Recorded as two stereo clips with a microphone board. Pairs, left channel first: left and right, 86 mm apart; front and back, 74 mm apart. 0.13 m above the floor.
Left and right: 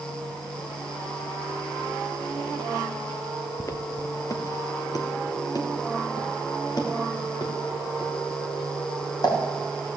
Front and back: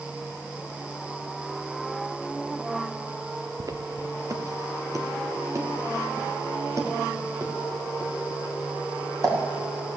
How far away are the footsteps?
About 0.8 m.